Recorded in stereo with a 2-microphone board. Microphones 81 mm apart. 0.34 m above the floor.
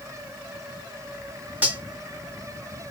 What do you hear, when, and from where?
1.6 s cutlery clinking: 20° right (ahead or behind), 1.2 m